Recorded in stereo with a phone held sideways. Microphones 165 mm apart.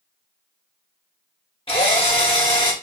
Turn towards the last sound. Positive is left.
turn(degrees=35)  # may be behind; listen again after turning